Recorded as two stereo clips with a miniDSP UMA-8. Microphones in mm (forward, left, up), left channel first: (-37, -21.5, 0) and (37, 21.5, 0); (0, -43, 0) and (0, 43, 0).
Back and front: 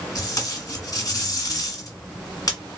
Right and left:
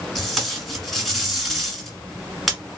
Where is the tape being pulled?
Straight behind, 1.3 m.